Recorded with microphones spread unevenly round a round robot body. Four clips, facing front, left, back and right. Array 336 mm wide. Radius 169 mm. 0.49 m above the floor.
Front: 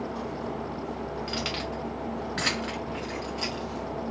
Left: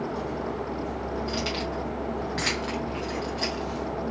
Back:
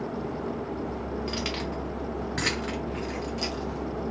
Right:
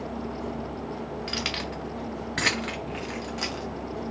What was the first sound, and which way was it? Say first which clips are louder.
Keys jangling: left 3 dB, back 1 dB; 110° right.